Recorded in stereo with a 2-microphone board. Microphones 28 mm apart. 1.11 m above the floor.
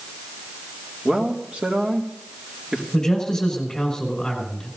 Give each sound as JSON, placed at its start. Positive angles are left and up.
{"t": 1.1, "sound": "a man speaking", "side_deg": -45, "distance_m": 2.0}
{"t": 2.9, "sound": "a man speaking", "side_deg": 20, "distance_m": 5.5}